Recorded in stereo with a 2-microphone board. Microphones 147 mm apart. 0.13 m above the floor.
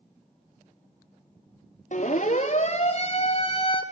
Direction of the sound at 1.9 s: 55° left (ahead or behind).